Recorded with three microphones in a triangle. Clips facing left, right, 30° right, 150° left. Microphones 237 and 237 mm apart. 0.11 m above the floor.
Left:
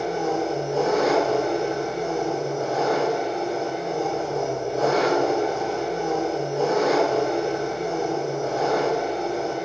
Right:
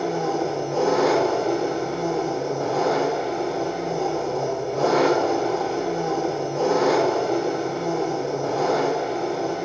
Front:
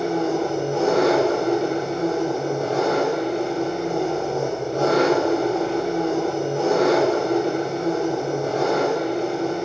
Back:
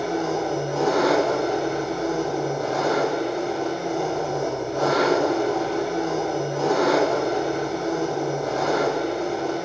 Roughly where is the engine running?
Right.